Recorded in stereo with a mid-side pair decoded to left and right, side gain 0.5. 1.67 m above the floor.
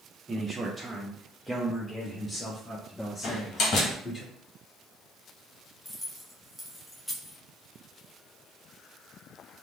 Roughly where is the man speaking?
Ahead right.